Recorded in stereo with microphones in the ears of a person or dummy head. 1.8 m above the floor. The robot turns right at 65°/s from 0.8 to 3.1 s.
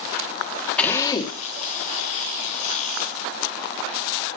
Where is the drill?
10° left, 1.7 m; by 1.4 s 50° left, 1.7 m.